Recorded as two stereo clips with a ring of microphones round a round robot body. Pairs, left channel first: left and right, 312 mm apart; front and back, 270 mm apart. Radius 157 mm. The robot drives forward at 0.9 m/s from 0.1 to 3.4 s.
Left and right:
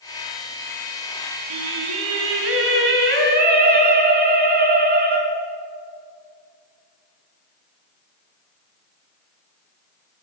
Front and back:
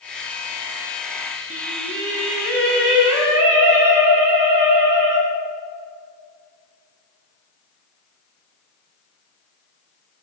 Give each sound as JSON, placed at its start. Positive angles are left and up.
{"t": 1.5, "sound": "singing", "azimuth_deg": -115, "distance_m": 1.5}